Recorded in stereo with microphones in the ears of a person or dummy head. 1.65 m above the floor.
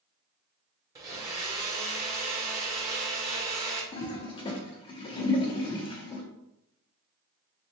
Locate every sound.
0.9 s a blender: 20° right (ahead or behind), 0.9 m
3.9 s a toilet flushing: 30° left (ahead or behind), 0.7 m